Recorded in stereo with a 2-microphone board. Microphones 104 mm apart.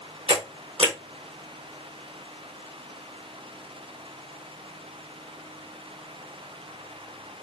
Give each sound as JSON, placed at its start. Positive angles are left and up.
{"t": 0.3, "sound": "a camera shutter", "side_deg": -70, "distance_m": 2.5}